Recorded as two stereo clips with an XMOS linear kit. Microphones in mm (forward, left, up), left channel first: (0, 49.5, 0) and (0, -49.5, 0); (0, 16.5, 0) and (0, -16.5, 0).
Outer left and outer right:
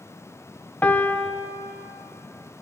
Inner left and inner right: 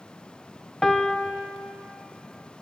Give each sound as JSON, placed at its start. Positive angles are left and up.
{"t": 0.8, "sound": "a piano", "side_deg": 15, "distance_m": 0.8}